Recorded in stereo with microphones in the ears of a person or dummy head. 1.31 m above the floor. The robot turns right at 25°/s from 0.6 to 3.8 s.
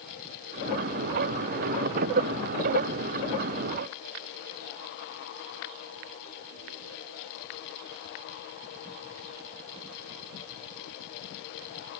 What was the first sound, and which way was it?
Only background noise.